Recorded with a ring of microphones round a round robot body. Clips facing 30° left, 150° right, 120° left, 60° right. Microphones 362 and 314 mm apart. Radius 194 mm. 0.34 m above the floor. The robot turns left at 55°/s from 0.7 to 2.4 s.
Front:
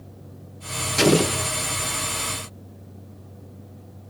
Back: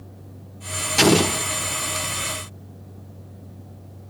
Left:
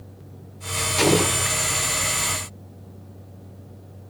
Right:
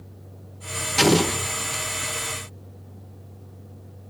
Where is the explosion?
85° right, 1.1 m; by 1.5 s 115° right, 1.1 m.